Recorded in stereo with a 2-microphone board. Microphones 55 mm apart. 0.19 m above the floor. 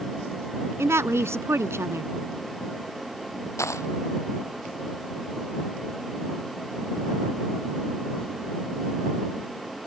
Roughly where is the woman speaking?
Right.